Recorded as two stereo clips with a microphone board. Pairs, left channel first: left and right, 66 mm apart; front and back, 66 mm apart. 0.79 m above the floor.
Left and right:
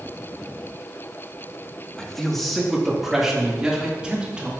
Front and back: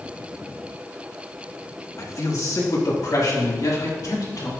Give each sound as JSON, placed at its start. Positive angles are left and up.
{"t": 2.0, "sound": "a man speaking", "azimuth_deg": 15, "distance_m": 1.4}